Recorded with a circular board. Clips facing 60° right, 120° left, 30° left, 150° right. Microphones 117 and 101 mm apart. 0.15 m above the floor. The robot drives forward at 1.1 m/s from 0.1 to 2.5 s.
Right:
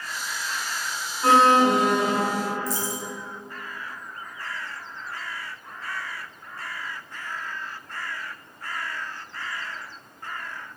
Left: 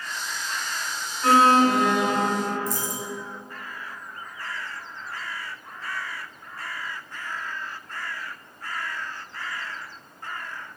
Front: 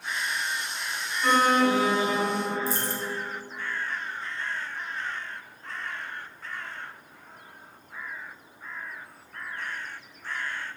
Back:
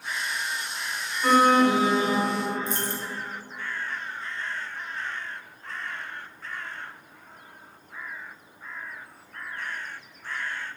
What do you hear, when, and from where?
1.2 s an alarm: 70° right, 1.5 m; by 2.6 s 150° right, 1.9 m
2.7 s a dropped coin: 85° left, 1.0 m